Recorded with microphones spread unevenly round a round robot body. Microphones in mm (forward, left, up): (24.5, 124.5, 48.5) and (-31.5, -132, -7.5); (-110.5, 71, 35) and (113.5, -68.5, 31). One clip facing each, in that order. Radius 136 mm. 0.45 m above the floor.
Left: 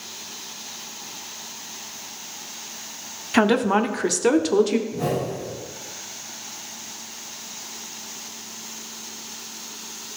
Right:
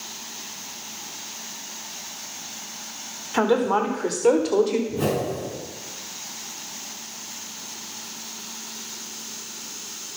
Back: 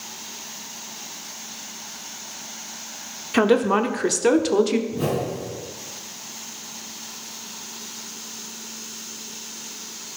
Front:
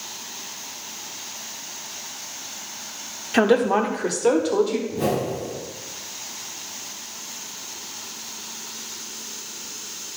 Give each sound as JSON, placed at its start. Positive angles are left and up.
{"t": 3.3, "sound": "a woman speaking", "azimuth_deg": 70, "distance_m": 1.1}
{"t": 4.9, "sound": "a whoosh", "azimuth_deg": -125, "distance_m": 4.5}